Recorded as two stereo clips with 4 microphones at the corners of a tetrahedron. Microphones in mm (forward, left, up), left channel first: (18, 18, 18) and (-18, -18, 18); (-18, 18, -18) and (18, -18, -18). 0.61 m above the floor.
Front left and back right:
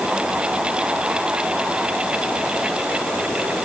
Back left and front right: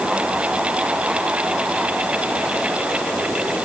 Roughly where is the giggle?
No giggle in this recording.